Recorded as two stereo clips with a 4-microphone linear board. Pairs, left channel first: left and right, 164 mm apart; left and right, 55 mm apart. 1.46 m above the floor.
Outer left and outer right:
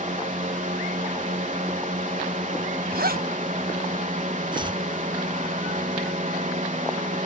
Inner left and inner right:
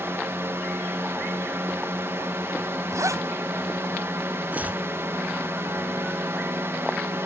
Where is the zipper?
70° right (ahead or behind).